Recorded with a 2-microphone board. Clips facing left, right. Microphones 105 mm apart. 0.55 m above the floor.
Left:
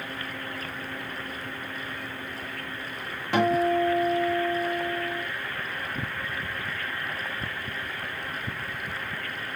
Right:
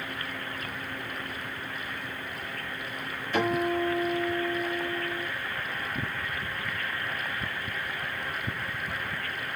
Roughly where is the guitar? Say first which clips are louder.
Left 4 dB; left.